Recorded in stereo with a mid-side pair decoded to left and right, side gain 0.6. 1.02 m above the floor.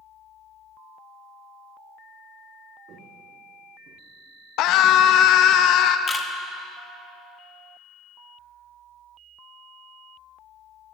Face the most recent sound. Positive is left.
turn(degrees=30)